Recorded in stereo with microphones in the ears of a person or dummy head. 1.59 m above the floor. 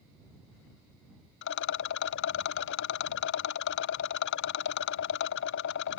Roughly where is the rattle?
Left.